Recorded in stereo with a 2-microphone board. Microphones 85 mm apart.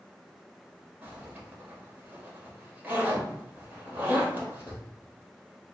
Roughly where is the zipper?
Right.